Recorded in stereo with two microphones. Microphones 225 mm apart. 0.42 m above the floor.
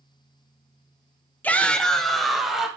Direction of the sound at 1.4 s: 10° left (ahead or behind).